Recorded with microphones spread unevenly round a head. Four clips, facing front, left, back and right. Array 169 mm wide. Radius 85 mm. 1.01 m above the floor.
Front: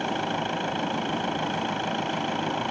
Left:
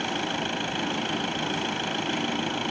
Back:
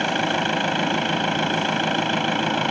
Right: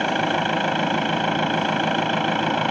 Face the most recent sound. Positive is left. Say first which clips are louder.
# right 8 dB, back 5 dB
turn(degrees=-135)